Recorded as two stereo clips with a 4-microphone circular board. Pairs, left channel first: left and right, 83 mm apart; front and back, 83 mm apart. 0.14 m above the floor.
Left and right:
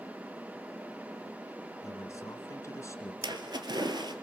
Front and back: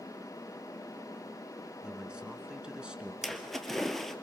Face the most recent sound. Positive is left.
turn(degrees=-85)